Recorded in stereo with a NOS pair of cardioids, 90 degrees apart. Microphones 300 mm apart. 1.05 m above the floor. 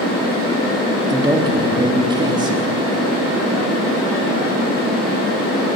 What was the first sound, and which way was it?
A man speaking, 15° right.